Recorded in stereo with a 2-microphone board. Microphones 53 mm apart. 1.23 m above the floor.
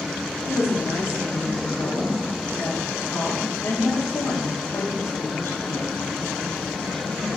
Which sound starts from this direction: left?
A woman speaking, at 0.5 s.